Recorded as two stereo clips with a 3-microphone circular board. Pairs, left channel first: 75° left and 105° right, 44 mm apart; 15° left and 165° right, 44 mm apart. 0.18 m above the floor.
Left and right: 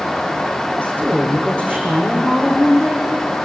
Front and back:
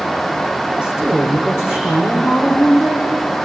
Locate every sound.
0.8 s a woman speaking: 15° left, 8.5 m